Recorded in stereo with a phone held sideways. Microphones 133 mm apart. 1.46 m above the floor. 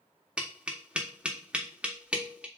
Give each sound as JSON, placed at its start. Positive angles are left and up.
{"t": 0.4, "sound": "tapping", "side_deg": -10, "distance_m": 0.8}